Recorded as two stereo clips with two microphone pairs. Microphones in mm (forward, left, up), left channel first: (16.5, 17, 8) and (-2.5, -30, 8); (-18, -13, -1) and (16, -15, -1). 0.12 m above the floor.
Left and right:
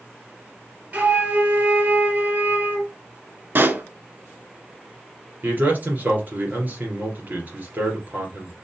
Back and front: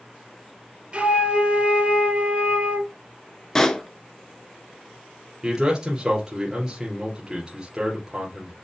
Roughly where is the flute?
Ahead right.